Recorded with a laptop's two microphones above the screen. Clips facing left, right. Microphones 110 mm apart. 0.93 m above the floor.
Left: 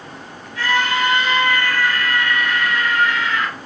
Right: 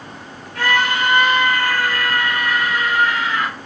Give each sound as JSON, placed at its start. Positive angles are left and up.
{"t": 0.6, "sound": "a scream", "side_deg": -65, "distance_m": 2.0}